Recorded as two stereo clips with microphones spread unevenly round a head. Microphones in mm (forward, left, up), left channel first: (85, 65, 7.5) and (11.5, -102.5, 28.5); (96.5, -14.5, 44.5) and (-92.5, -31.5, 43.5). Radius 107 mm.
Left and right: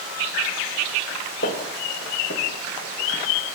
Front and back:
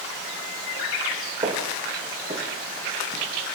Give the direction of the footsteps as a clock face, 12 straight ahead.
8 o'clock.